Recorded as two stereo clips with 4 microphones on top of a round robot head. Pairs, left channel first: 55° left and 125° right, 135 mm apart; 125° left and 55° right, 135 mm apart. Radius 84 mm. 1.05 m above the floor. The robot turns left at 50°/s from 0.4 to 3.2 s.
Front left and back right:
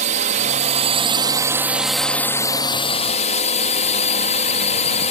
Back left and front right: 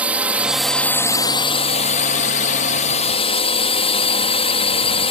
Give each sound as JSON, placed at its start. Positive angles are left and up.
{"t": 0.0, "sound": "a drone", "azimuth_deg": -135}